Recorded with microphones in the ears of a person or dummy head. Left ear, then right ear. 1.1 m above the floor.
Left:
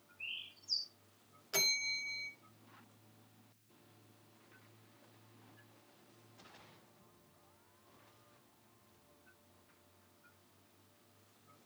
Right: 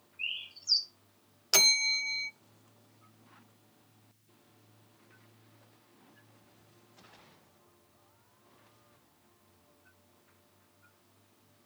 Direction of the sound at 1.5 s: 50° right (ahead or behind).